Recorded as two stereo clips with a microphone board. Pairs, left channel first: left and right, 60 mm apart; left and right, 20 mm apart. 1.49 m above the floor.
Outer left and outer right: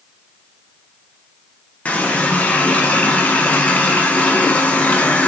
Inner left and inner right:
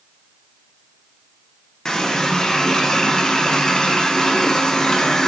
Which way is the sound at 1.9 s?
25° left (ahead or behind).